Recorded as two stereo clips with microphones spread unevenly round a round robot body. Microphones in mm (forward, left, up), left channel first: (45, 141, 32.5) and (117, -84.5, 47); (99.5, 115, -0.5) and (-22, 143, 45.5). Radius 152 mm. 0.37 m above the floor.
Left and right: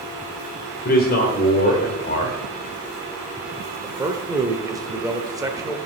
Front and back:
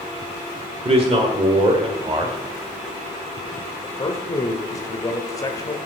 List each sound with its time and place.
0.8 s a man speaking: 120° left, 1.3 m
3.8 s a man speaking: 5° left, 1.1 m